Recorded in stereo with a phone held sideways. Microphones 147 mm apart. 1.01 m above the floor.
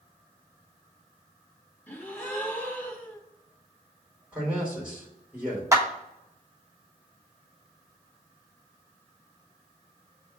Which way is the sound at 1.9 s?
10° left (ahead or behind).